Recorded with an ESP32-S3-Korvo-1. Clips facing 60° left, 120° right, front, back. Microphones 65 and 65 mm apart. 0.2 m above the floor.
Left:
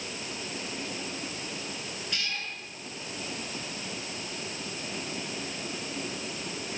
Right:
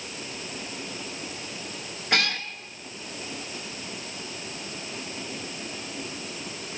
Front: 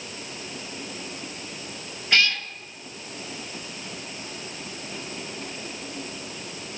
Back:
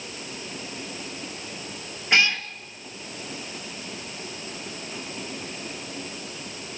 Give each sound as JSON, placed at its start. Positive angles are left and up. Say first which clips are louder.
{"t": 2.1, "sound": "a cat meowing", "louder": "right 11 dB, back 1 dB", "azimuth_deg": -110, "distance_m": 1.5}